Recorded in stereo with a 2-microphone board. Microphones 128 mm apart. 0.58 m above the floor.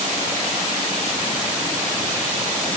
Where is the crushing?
I don't hear crushing.